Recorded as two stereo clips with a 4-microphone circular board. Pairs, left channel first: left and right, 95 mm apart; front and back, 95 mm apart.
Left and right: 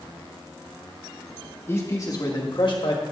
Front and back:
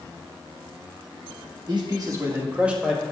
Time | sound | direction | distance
1.7 | a man speaking | 150° left | 1.5 m